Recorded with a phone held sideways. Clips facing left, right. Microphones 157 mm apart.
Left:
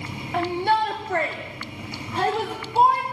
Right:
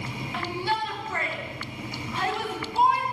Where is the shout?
55° left (ahead or behind), 1.7 m; by 3.0 s 50° left (ahead or behind), 5.5 m.